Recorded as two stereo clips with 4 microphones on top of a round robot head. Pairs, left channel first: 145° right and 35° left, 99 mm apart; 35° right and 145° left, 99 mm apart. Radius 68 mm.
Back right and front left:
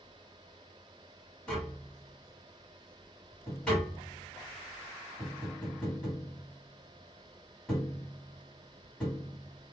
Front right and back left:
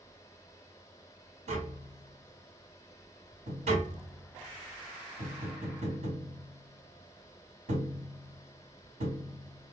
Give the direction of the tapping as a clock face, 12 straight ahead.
8 o'clock.